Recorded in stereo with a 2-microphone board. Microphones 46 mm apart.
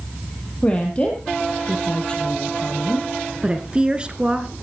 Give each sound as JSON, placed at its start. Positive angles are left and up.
{"t": 0.6, "sound": "a woman speaking", "side_deg": 25, "distance_m": 3.0}
{"t": 3.4, "sound": "a woman speaking", "side_deg": -20, "distance_m": 1.5}